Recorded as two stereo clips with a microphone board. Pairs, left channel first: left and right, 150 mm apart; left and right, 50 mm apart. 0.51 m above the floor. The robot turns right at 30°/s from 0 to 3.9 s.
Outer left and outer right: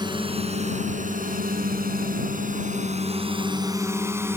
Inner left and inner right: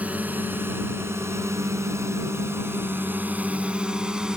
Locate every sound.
0.0 s a drone: 30° right (ahead or behind); by 4.4 s 15° right (ahead or behind)